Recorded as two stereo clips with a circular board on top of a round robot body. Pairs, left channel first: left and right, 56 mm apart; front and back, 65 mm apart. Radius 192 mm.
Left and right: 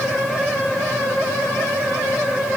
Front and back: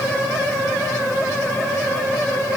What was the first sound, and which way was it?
Only background noise.